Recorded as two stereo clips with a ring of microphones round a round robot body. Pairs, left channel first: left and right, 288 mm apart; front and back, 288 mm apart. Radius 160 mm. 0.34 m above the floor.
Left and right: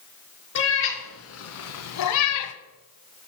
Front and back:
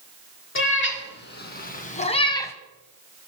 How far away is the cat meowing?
About 2.5 m.